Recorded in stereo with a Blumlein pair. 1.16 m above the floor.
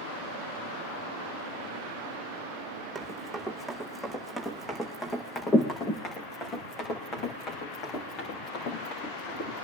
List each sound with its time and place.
3.0 s running footsteps: 5° right, 4.5 m; by 9.6 s 40° left, 9.5 m